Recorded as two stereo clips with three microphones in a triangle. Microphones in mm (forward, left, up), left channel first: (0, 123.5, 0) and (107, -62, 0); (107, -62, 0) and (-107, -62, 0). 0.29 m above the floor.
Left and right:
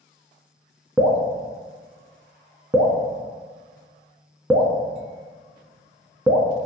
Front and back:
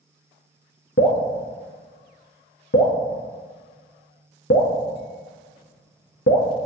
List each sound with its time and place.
1.0 s dripping: 20° left, 0.5 m